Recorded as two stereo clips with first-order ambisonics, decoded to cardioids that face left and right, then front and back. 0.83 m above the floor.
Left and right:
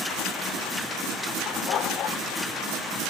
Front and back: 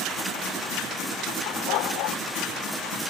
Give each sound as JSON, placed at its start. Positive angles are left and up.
{"t": 1.5, "sound": "a dog barking", "azimuth_deg": 35}